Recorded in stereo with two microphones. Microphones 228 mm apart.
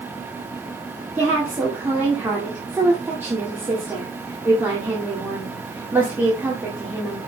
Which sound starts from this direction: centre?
A woman speaking, at 1.1 s.